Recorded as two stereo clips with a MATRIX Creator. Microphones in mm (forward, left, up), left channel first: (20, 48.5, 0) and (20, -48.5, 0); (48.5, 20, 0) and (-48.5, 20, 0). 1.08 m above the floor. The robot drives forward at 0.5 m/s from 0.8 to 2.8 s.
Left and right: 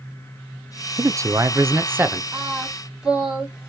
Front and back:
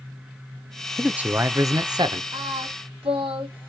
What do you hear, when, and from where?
1.0 s a man speaking: 95° right, 0.5 m; by 2.2 s 155° right, 0.8 m
2.3 s singing: 170° right, 2.5 m; by 3.7 s 175° right, 2.5 m